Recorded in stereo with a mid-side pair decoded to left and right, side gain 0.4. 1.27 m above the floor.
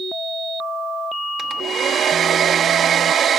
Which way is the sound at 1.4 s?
65° right.